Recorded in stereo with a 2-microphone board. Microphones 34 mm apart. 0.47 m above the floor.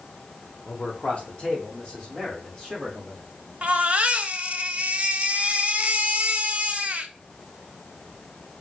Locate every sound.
0.7 s a man speaking: 35° left (ahead or behind), 1.2 m; by 3.2 s 5° right (ahead or behind), 3 m
3.6 s a baby crying: 40° right (ahead or behind), 0.7 m